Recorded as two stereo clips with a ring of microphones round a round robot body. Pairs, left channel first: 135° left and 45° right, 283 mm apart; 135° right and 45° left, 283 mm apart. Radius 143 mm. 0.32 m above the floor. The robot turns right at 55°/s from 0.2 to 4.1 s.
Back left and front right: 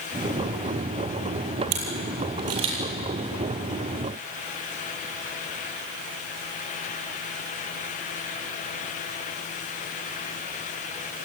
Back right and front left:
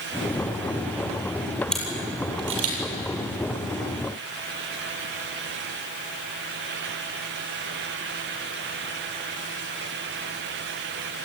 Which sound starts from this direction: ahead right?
A camera shutter, at 1.7 s.